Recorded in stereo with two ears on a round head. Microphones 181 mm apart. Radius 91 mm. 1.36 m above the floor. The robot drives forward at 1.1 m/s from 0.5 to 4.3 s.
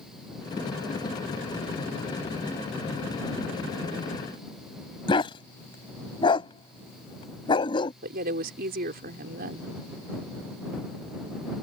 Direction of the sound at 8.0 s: 50° right (ahead or behind).